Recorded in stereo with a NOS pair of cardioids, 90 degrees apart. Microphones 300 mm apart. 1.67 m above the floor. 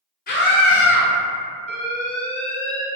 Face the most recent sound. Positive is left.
turn(degrees=5)